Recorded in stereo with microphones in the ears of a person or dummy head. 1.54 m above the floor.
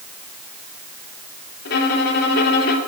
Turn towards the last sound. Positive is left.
turn(degrees=55)  # may be behind; listen again after turning